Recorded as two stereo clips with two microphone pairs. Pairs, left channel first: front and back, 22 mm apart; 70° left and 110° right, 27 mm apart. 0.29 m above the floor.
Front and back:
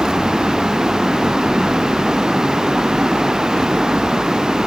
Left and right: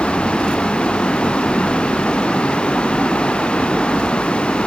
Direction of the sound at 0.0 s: 120° left.